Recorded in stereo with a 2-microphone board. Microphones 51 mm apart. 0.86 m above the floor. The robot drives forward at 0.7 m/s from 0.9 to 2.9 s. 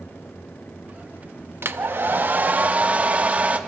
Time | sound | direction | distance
1.6 | a hair dryer | 55° right (ahead or behind) | 0.9 m